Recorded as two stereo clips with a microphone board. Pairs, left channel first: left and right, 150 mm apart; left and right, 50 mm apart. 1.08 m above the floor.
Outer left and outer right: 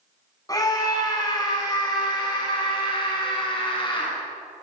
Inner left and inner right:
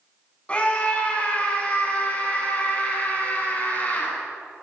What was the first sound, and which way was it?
A scream, 25° left (ahead or behind).